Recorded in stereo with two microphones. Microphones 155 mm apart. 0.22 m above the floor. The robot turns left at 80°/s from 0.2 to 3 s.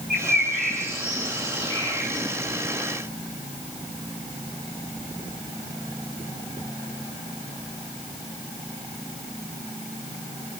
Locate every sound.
0.1 s a bird: 80° right, 9.5 m; by 2.3 s 65° left (ahead or behind), 9.5 m